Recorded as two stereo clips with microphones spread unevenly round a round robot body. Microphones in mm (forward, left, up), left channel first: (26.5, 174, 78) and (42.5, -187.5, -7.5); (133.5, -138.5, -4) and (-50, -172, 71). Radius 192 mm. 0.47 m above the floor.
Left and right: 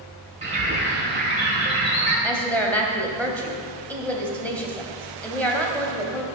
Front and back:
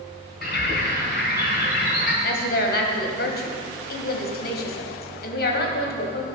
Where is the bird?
15° right, 4 m.